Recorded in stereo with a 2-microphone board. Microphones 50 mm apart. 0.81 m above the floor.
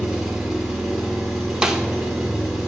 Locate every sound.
0.0 s an engine running: centre (ahead or behind), 2 m
1.6 s a snare drum: 15° right (ahead or behind), 0.8 m